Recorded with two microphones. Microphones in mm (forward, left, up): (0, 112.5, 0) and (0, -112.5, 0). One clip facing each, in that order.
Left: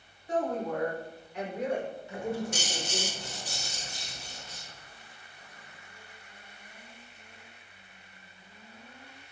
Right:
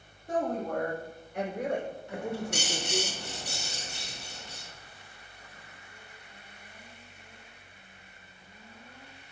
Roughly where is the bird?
Right.